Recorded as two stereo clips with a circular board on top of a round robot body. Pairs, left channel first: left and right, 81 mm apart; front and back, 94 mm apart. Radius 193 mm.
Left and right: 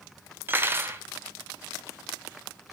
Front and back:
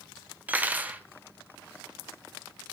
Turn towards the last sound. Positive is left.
turn(degrees=-125)